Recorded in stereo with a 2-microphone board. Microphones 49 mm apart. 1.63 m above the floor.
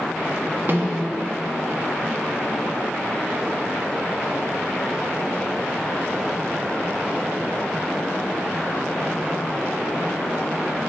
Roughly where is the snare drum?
Right.